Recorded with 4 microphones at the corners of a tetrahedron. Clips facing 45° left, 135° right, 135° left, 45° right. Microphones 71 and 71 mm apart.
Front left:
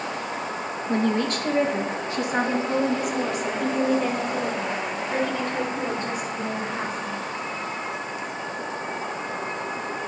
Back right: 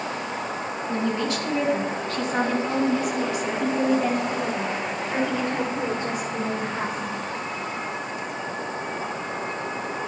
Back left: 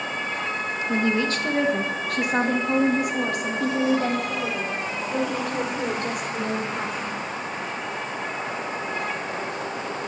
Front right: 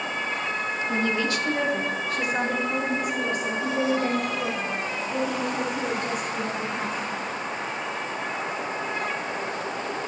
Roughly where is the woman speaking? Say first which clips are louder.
Front left 3 dB, back left 3 dB; left.